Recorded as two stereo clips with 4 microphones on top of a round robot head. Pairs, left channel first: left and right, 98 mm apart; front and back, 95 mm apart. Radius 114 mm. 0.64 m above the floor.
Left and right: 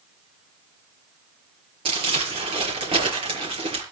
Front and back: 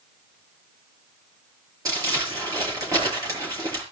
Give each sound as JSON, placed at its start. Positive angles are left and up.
{"t": 1.9, "sound": "crumpling", "azimuth_deg": -120, "distance_m": 6.0}